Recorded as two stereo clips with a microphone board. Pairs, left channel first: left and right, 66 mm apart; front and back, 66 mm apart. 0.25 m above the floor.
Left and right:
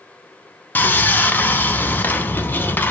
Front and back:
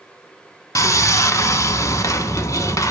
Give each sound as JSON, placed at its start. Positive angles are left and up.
{"t": 0.8, "sound": "sawing", "azimuth_deg": 30, "distance_m": 0.7}